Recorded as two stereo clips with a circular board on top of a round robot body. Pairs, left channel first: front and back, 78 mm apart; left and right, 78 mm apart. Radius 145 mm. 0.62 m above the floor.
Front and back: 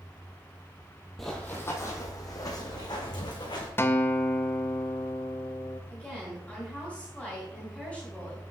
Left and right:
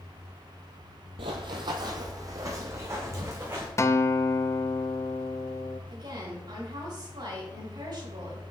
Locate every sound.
1.2 s running footsteps: 85° right, 0.9 m; by 3.7 s 30° right, 3 m
3.8 s a guitar: 50° left, 0.9 m
5.9 s a woman speaking: 75° right, 4 m